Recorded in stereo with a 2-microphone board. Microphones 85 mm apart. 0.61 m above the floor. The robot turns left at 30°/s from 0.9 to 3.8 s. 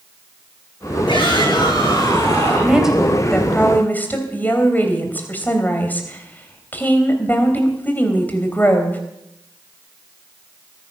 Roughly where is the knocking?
No knocking in this recording.